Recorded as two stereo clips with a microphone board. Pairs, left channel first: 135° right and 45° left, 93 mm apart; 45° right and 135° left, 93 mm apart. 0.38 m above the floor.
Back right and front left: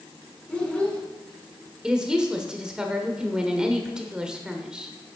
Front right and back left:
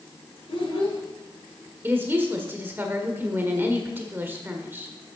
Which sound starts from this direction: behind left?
A woman speaking, at 1.8 s.